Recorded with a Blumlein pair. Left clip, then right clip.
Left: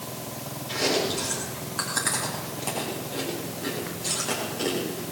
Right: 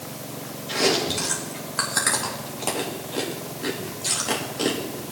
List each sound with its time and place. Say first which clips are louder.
0.7 s chewing: right 3 dB; 15° right, 3 m